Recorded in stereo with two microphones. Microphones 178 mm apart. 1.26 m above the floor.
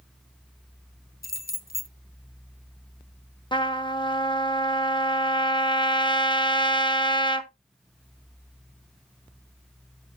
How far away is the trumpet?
About 0.8 m.